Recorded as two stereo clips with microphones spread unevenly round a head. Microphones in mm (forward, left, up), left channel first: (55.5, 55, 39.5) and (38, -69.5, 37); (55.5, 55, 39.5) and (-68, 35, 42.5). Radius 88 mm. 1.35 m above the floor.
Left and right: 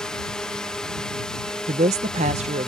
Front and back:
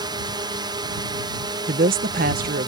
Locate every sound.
0.0 s a drone: 165° left
1.7 s a woman speaking: 145° right